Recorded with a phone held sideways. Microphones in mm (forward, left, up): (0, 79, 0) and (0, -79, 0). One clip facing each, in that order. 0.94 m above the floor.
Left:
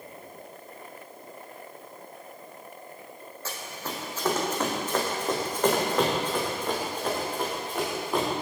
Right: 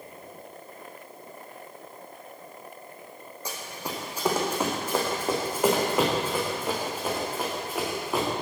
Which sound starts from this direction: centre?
Running footsteps, at 3.5 s.